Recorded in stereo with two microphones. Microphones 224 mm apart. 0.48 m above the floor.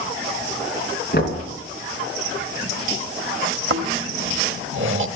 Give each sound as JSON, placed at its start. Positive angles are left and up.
{"t": 1.1, "sound": "knocking", "side_deg": 50, "distance_m": 3.0}
{"t": 3.7, "sound": "snoring", "side_deg": -60, "distance_m": 1.0}